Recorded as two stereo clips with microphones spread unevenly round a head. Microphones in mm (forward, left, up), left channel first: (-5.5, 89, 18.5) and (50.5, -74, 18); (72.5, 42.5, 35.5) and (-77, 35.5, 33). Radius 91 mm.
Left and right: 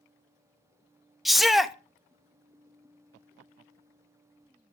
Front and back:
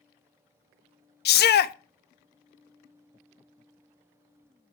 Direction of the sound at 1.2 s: 20° left.